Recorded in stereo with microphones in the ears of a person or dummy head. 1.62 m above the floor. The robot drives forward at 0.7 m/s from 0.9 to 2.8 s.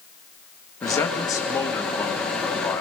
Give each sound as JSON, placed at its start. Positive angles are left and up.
{"t": 0.8, "sound": "a man speaking", "side_deg": 20, "distance_m": 2.0}